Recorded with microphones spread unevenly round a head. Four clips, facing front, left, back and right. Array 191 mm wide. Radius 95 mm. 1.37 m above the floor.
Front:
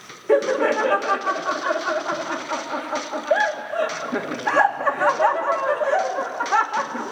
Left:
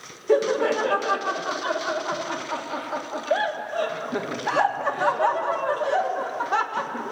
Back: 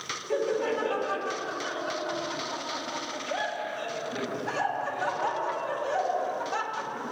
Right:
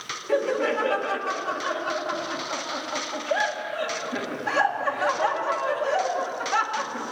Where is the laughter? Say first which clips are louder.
Left 3 dB, front 9 dB; 20° left, 2 m.